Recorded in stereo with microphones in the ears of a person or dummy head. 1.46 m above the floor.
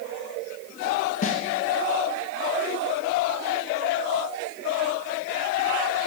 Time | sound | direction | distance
1.2 | a snare drum | 45° left (ahead or behind) | 1.0 m